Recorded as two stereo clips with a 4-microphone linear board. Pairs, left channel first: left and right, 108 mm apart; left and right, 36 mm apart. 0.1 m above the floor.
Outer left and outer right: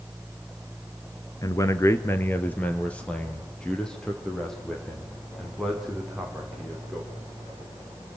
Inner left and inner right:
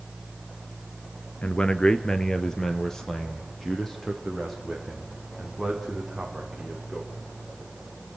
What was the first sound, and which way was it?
A man speaking, 30° left (ahead or behind).